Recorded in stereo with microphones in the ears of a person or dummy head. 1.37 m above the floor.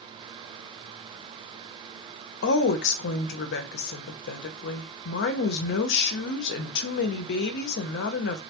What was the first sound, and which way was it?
A woman speaking, 65° left (ahead or behind).